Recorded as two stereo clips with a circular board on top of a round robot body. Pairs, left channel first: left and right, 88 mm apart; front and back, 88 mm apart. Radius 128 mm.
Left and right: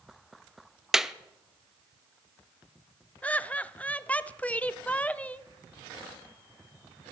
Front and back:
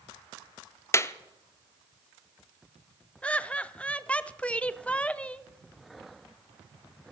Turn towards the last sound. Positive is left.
turn(degrees=50)